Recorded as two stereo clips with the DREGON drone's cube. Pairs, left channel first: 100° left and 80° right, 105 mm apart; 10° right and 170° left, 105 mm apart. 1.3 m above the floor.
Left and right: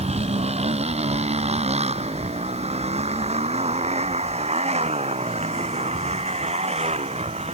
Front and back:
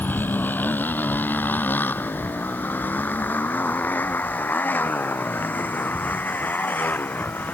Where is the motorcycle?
85° right.